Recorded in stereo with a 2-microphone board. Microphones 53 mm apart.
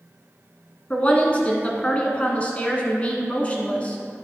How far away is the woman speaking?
About 1.4 m.